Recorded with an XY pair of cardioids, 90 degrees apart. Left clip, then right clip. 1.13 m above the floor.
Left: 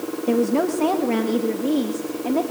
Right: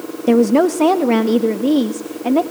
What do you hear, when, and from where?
0.3 s a woman speaking: 60° right, 1.0 m; by 2.4 s 55° right, 2 m